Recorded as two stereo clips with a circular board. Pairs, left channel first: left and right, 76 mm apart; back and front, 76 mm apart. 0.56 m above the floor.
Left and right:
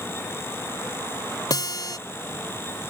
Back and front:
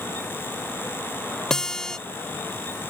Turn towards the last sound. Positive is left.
turn(degrees=100)